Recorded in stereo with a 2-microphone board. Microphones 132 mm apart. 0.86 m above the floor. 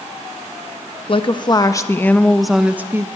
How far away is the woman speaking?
About 1.3 m.